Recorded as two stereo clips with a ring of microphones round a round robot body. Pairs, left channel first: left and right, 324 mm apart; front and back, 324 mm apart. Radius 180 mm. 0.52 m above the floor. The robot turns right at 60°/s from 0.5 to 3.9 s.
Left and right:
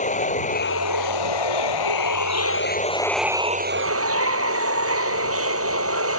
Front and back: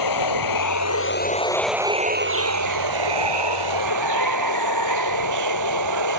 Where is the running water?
20° left; by 6.2 s 135° right.